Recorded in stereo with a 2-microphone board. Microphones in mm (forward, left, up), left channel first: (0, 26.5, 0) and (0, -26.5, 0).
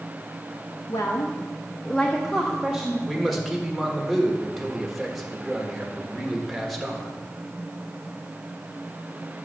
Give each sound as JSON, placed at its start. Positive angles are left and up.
{"t": 0.9, "sound": "a woman speaking", "side_deg": 85, "distance_m": 1.0}
{"t": 3.1, "sound": "a man speaking", "side_deg": 0, "distance_m": 1.6}